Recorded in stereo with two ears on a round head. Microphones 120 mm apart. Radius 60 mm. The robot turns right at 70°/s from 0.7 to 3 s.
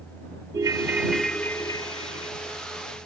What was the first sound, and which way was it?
A ringtone, 30° right.